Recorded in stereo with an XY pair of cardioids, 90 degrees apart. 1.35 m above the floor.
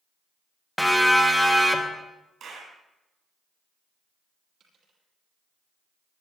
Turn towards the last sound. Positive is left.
turn(degrees=-70)